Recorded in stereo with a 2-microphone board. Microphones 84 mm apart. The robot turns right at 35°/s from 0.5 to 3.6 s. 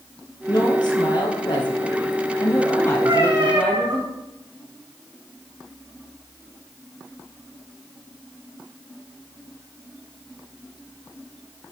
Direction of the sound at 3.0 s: 35° right (ahead or behind).